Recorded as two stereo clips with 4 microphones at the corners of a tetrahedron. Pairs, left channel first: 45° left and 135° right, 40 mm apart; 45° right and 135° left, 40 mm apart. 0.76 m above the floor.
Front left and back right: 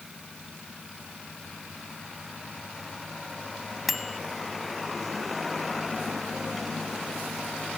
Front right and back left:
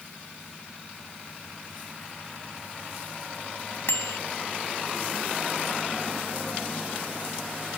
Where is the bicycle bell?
50° right.